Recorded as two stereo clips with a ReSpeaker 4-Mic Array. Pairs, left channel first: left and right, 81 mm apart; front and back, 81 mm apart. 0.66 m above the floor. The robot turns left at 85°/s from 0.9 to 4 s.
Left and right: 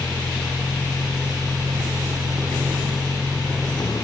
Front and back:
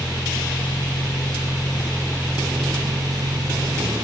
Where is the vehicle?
15° left; by 4.0 s 125° left.